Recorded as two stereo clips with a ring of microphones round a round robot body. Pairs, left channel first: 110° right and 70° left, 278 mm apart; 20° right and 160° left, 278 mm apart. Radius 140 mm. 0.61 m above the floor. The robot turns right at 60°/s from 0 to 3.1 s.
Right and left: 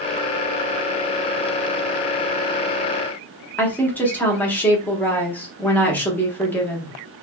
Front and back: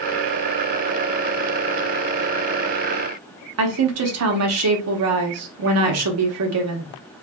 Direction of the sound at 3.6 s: 165° left.